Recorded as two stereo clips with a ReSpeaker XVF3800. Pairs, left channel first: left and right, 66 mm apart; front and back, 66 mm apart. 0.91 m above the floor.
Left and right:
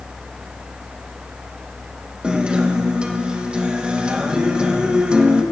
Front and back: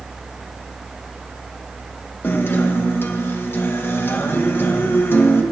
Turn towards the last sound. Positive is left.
turn(degrees=-25)